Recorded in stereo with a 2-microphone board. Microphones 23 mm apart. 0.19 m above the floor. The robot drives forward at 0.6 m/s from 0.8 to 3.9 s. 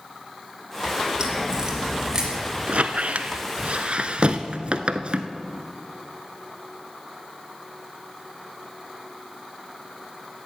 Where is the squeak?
55° right (ahead or behind), 0.7 m; by 5.3 s 50° right (ahead or behind), 0.7 m.